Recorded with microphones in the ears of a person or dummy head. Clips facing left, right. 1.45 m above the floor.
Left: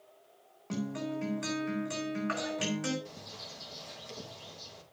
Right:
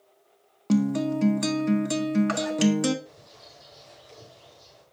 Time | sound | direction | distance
0.7 | a guitar | 55° right (ahead or behind) | 1.1 m
3.0 | a bird | 70° left (ahead or behind) | 2.5 m